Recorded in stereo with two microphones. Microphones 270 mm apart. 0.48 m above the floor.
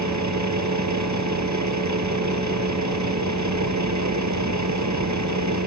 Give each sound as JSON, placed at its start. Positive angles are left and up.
{"t": 0.0, "sound": "a vehicle", "side_deg": -80}